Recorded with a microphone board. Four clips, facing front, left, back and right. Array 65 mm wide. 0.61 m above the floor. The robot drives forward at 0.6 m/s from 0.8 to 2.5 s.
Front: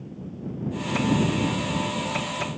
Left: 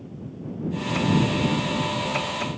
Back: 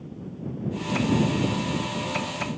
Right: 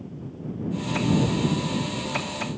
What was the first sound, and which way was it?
Only background noise.